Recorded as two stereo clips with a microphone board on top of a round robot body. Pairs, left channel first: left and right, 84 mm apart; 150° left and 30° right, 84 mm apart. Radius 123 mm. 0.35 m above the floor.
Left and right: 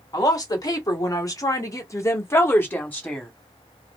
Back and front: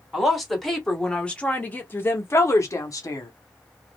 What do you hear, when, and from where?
0.1 s a woman speaking: 60° left, 1.6 m; by 3.3 s 160° left, 1.2 m